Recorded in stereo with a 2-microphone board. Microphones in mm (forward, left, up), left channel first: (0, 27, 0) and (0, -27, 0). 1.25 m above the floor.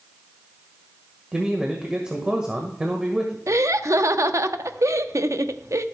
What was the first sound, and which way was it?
A man speaking, 15° right (ahead or behind).